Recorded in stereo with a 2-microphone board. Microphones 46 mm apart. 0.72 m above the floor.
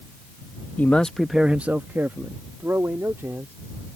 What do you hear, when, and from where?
0.8 s a man speaking: 35° left (ahead or behind); by 3.5 s 75° right (ahead or behind)